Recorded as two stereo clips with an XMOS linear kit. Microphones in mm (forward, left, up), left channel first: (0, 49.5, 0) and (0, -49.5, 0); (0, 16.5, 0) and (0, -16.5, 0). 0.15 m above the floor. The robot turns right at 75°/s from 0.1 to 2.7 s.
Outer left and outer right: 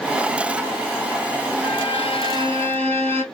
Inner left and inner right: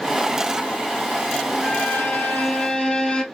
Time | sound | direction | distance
1.6 | a violin | 75° left | 1.2 m